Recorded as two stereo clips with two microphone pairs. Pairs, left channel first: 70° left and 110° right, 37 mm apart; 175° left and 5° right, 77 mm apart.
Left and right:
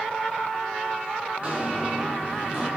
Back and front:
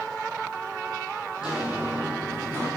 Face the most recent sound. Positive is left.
turn(degrees=-50)